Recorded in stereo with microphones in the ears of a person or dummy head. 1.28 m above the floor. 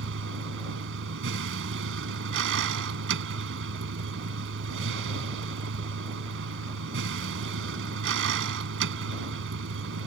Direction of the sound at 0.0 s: 75° right (ahead or behind).